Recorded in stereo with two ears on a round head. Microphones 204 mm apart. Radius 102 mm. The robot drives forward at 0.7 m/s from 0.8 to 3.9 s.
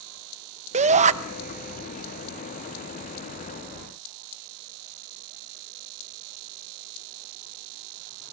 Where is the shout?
30° right (ahead or behind), 0.8 m.